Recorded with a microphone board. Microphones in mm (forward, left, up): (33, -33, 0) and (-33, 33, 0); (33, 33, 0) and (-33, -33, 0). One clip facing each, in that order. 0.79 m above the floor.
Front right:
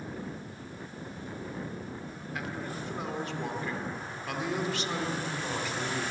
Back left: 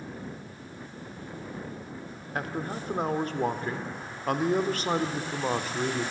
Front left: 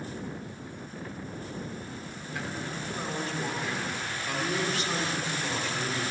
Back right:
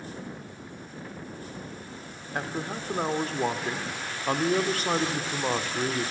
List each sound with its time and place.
2.4 s a man speaking: straight behind, 1.9 m